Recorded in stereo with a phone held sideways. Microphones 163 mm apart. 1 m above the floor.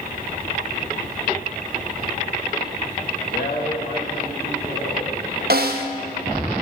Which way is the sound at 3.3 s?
65° left (ahead or behind).